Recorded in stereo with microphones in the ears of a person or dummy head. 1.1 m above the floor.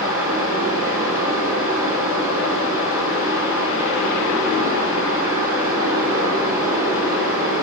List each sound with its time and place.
0.0 s a fan: 10° right (ahead or behind), 7.5 m